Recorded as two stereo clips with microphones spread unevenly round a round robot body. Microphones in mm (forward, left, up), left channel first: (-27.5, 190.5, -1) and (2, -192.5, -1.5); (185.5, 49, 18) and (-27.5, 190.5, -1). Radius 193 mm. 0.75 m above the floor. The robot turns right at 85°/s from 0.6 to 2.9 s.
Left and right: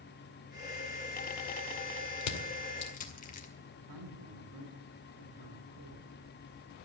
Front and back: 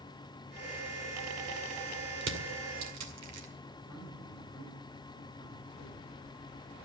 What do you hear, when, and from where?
2.2 s crushing: 105° left, 2 m; by 3.5 s 165° left, 2 m
3.7 s a man speaking: 95° right, 3 m